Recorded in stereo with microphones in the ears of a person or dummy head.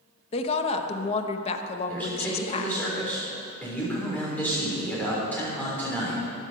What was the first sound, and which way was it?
A woman speaking, 35° left (ahead or behind).